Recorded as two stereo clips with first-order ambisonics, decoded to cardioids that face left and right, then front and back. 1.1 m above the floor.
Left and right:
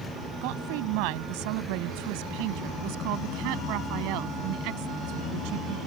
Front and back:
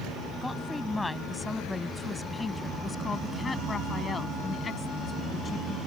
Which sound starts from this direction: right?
A woman speaking, at 0.4 s.